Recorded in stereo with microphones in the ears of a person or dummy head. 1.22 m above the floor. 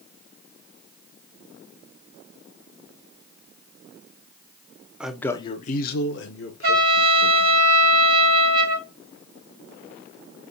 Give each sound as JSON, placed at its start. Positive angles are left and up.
{"t": 5.0, "sound": "a man speaking", "side_deg": -5, "distance_m": 0.5}
{"t": 6.6, "sound": "a trumpet", "side_deg": -50, "distance_m": 1.3}